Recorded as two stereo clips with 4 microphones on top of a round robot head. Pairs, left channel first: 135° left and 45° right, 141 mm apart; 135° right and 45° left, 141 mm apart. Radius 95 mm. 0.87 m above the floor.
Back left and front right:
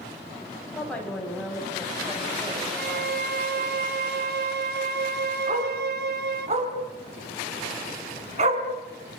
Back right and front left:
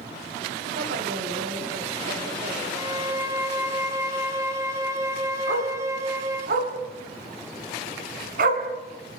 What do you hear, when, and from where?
0.7 s a woman speaking: 55° left, 7 m; by 3.8 s 30° left, 9.5 m
2.8 s a violin: 30° right, 1.3 m
5.5 s a dog barking: 5° left, 3.5 m